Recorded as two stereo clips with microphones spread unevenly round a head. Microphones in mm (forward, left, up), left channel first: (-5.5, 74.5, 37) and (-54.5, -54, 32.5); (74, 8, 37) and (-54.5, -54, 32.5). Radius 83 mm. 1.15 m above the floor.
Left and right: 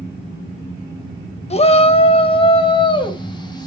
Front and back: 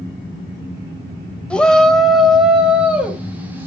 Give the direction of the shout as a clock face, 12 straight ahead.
8 o'clock.